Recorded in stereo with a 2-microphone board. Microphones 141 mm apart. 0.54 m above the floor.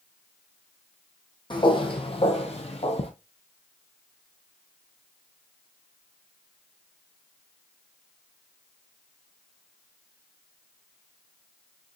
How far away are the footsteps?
About 1.0 m.